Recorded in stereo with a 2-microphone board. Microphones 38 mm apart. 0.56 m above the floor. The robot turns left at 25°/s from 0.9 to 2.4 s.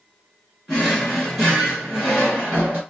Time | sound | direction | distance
0.7 | a drawer | 5° right | 2 m